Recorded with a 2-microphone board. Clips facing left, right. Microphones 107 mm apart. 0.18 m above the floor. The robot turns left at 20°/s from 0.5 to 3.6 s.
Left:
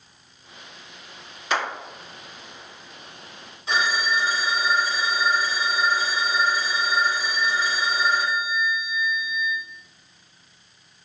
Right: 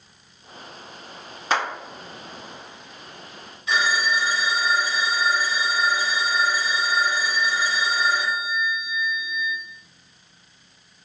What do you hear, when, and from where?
1.5 s a clap: 40° right (ahead or behind), 1.9 m
3.7 s a phone ringing: 30° left (ahead or behind), 1.4 m